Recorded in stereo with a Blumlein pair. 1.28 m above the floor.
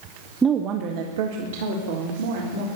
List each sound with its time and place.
0.4 s a woman speaking: 15° right, 0.9 m; by 2.7 s 65° right, 3.5 m